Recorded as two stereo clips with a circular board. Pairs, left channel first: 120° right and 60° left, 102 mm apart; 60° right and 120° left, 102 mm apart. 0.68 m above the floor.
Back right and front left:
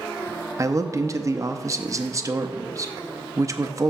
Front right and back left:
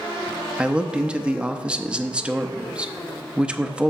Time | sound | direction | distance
0.6 | a man speaking | 50° left | 0.6 m